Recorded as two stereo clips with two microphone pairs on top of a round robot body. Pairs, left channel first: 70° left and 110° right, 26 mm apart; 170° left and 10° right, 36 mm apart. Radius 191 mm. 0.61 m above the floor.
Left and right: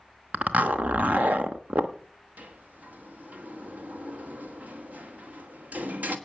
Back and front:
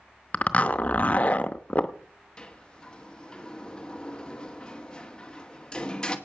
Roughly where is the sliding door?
Behind right.